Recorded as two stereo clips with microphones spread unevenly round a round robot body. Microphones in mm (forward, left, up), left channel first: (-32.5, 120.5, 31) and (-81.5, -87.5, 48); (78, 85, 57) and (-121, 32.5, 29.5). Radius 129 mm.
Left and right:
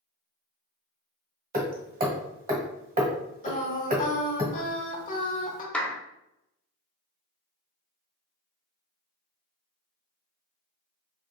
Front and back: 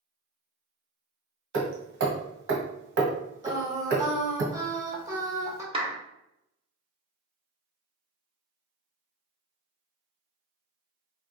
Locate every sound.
1.5 s hammering: 150° right, 1.4 m
3.4 s singing: 125° left, 1.1 m
5.7 s a clap: 155° left, 1.0 m